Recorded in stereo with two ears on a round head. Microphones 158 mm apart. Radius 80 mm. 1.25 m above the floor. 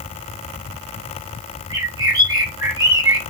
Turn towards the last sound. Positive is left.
turn(degrees=-25)  # may be behind; listen again after turning